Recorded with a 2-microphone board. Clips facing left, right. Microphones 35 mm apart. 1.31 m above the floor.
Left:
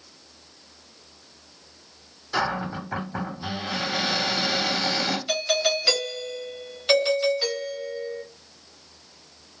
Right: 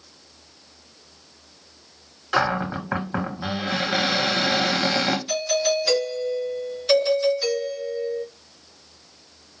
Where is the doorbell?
35° left (ahead or behind), 1.2 m.